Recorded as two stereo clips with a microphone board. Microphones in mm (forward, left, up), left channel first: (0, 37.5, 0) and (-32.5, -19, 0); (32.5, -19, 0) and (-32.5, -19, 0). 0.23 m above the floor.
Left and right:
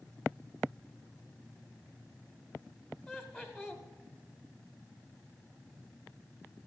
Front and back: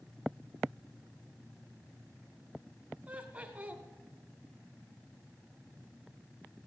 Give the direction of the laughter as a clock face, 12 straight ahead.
7 o'clock.